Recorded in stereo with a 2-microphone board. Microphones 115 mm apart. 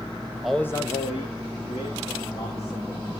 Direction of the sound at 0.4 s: 5° right (ahead or behind).